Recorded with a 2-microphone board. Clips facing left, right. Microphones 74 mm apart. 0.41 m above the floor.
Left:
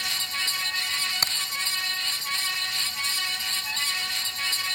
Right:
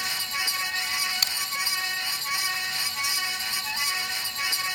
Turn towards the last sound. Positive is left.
turn(degrees=35)  # may be behind; listen again after turning